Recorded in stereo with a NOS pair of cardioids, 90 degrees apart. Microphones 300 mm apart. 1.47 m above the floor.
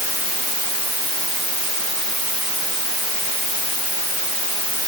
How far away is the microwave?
No microwave in this recording.